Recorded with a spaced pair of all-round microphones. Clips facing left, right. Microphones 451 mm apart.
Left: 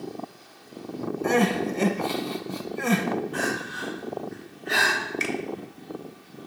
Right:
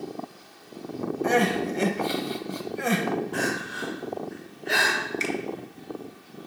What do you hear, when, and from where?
1.2 s crying: 5° left (ahead or behind), 0.9 m
3.3 s crying: 85° right, 4.5 m
5.2 s a finger snap: 30° left (ahead or behind), 1.1 m